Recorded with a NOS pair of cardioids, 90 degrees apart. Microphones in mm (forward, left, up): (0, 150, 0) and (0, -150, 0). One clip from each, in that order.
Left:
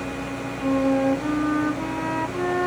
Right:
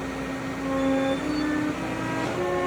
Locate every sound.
0.6 s a flute: 30° left